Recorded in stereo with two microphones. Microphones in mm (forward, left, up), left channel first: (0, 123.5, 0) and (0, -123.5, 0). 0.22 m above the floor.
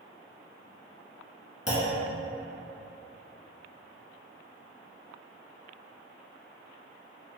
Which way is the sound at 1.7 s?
70° left (ahead or behind).